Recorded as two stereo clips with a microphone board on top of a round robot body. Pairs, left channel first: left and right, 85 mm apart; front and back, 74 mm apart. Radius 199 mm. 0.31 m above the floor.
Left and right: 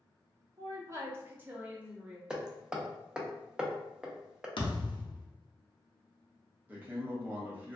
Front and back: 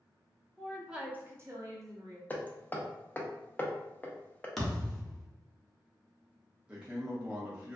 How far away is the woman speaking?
About 0.9 m.